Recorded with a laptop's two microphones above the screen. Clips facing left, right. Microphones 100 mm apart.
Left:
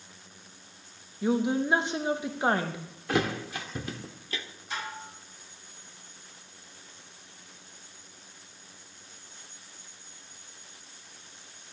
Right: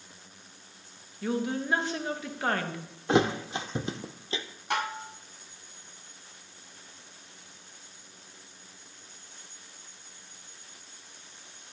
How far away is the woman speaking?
About 0.7 m.